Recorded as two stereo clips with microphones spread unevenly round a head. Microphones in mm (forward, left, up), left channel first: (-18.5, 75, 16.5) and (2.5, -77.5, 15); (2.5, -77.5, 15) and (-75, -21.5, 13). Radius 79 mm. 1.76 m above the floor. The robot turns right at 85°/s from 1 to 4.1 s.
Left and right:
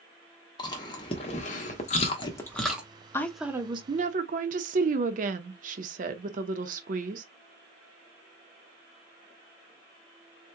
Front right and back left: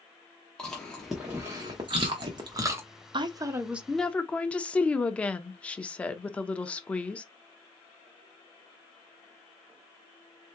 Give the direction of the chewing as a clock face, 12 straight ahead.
11 o'clock.